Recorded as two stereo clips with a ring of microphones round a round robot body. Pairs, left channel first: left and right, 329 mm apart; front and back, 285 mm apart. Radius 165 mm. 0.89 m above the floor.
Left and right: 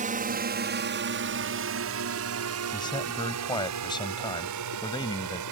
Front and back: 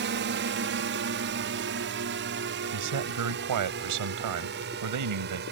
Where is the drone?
145° right; by 5.5 s 120° right.